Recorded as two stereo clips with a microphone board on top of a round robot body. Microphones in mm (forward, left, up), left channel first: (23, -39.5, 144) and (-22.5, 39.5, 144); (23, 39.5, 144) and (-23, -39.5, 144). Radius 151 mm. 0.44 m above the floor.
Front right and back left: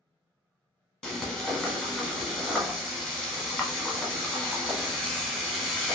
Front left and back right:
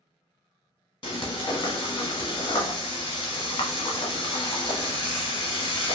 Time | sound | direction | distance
1.0 | frying | 25° left | 0.9 m